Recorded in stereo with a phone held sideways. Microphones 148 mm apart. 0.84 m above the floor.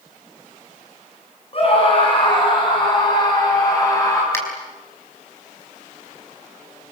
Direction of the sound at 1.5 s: 40° left (ahead or behind).